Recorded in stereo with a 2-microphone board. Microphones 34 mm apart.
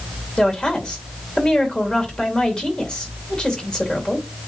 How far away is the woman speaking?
About 2.5 m.